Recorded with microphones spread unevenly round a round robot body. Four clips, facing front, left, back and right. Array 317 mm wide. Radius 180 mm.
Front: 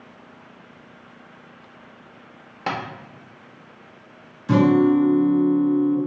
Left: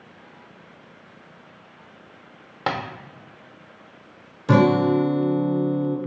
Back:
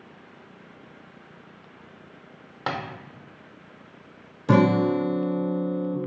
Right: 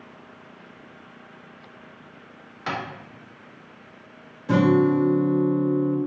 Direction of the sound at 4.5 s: 115° left.